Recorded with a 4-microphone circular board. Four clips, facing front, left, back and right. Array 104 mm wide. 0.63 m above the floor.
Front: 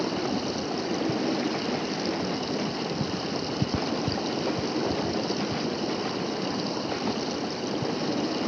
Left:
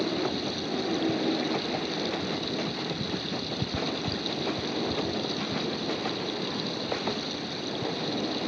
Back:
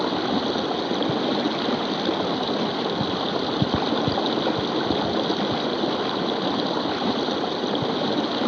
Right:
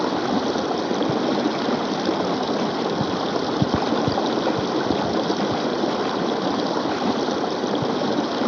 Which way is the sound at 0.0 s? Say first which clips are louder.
Right 8 dB, back 5 dB; 115° right.